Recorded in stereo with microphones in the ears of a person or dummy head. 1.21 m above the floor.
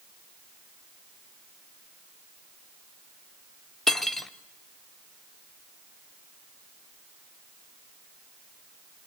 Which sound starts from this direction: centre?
Cutlery clinking, at 3.9 s.